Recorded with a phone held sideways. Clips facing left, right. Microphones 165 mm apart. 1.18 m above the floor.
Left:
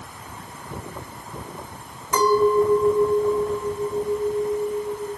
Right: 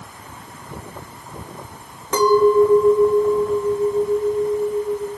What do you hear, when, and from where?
2.1 s a clink: 85° right, 3.5 m